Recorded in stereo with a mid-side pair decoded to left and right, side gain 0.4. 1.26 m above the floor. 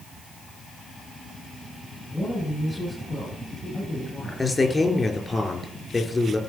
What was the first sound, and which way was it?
A woman speaking, 15° left.